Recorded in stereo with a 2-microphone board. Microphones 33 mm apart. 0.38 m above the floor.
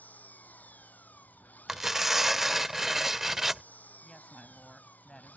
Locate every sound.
0.0 s an engine running: 55° left (ahead or behind)
1.7 s tearing paper: 10° right (ahead or behind)
4.0 s a woman speaking: 20° left (ahead or behind)